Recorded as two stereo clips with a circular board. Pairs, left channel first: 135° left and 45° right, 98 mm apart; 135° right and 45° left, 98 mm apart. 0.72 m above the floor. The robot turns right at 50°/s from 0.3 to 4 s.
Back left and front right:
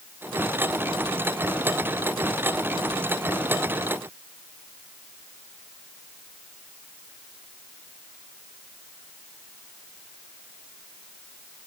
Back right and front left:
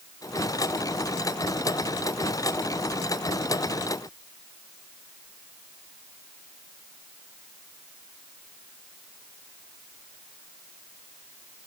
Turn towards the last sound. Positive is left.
No sound to turn to.